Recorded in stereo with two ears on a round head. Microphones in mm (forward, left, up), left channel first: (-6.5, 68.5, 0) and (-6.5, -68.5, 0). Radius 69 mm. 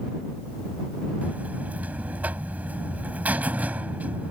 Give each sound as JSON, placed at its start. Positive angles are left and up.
{"t": 1.2, "sound": "a buzzer", "side_deg": -10}